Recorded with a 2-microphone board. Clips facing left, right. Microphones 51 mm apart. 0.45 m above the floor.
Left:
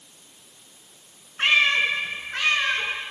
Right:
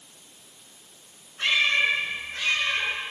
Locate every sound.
1.4 s a cat meowing: 45° left (ahead or behind), 2.0 m; by 2.9 s 85° left, 2.5 m